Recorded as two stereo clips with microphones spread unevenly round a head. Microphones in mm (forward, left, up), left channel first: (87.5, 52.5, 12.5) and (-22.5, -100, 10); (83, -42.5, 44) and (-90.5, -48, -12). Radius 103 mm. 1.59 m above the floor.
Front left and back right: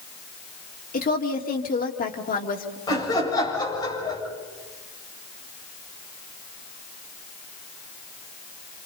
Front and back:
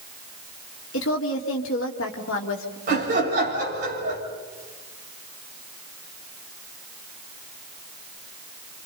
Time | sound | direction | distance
0.9 | a woman speaking | 10° left | 2.5 m
2.9 | laughter | 125° left | 7 m